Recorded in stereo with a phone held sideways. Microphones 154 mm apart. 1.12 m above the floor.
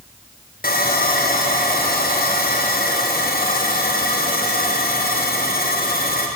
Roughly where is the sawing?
Left.